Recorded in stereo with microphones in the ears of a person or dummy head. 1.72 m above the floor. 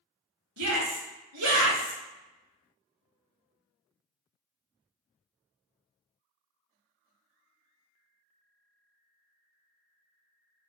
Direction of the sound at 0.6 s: 65° right (ahead or behind).